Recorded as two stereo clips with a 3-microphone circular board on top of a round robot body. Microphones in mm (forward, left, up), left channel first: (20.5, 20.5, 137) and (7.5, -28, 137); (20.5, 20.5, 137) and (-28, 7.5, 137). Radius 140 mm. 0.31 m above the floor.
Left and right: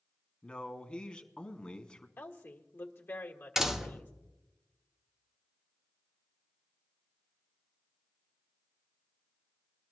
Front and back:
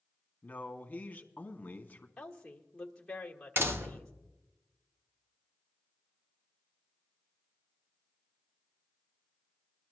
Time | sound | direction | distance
0.4 | a man speaking | 35° left | 1.6 m
2.2 | a woman speaking | 90° left | 1.6 m
3.6 | a door slam | 175° left | 1.3 m